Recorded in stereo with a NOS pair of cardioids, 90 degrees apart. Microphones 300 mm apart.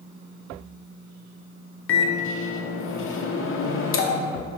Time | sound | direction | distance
1.9 | a microwave | 45° left | 0.6 m